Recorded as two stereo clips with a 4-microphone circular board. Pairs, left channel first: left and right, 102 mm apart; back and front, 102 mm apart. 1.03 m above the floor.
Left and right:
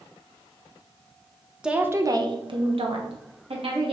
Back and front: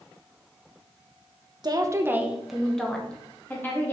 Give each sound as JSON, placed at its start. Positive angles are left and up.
{"t": 1.6, "sound": "a woman speaking", "azimuth_deg": -10, "distance_m": 0.8}